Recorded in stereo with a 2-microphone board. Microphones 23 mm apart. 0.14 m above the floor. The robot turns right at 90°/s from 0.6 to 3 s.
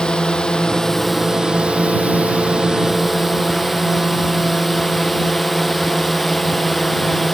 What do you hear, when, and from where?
0.0 s a drone: 135° left; by 7.3 s 5° right